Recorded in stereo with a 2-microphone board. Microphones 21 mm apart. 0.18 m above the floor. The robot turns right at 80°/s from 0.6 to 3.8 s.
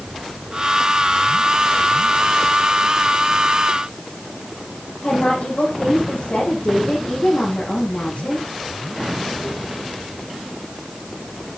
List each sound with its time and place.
5.0 s a woman speaking: 75° left (ahead or behind), 8.5 m